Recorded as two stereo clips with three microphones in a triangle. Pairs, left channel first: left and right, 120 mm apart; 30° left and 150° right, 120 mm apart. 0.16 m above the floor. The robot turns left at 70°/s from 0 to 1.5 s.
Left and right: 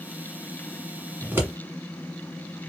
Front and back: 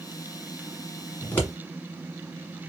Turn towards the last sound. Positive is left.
turn(degrees=-40)